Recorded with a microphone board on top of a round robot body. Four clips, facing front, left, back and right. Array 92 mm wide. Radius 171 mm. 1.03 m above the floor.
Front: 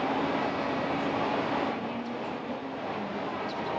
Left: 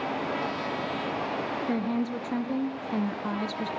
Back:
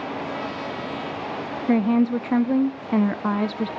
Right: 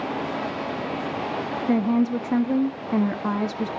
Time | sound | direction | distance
1.7 | a woman speaking | 155° right | 0.8 m